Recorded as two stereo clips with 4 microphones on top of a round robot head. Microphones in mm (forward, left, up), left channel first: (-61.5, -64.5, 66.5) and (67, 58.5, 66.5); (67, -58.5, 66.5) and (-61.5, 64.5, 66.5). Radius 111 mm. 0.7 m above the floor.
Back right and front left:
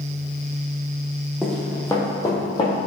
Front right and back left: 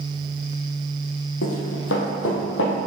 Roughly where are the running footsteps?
Ahead right.